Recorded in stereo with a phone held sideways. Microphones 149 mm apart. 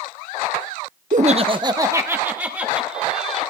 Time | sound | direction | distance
1.1 | laughter | 60° right (ahead or behind) | 0.5 m